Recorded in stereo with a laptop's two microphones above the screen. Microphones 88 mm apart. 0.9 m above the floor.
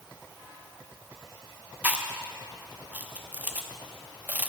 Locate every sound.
1.8 s chewing: 20° right (ahead or behind), 0.8 m